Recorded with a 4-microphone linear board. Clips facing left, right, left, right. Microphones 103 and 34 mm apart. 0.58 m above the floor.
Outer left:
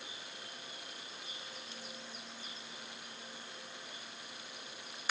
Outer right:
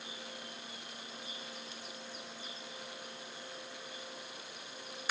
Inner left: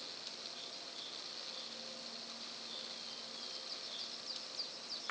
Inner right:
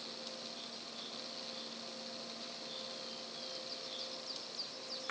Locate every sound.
Only background noise.